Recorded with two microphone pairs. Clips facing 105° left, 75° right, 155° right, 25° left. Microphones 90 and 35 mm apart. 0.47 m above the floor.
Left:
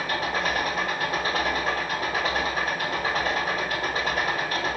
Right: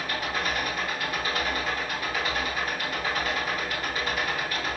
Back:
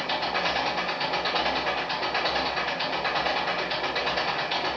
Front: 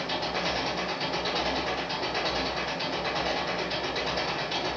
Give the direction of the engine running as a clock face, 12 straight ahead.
7 o'clock.